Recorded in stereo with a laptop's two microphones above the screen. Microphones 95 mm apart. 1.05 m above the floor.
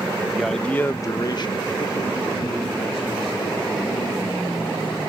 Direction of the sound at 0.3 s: 5° right (ahead or behind).